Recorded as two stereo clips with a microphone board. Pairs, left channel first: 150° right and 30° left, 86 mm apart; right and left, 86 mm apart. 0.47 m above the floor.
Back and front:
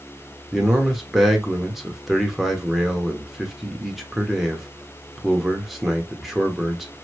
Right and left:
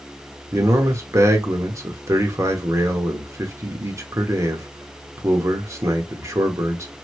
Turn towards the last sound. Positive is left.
turn(degrees=115)